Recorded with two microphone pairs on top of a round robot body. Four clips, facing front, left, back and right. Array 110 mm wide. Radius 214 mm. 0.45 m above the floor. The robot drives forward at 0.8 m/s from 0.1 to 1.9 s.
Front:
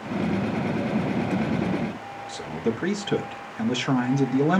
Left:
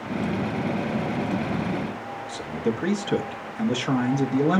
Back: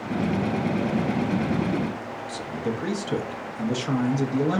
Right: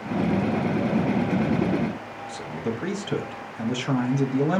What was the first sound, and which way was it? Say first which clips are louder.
A man speaking: left 3 dB, front 3 dB; 15° left.